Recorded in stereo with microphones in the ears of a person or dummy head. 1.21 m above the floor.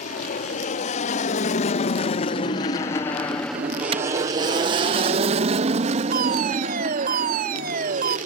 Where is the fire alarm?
55° right (ahead or behind).